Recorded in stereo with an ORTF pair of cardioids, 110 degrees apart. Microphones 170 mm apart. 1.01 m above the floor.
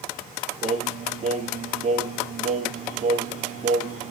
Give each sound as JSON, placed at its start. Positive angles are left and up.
{"t": 0.6, "sound": "singing", "azimuth_deg": -45, "distance_m": 1.4}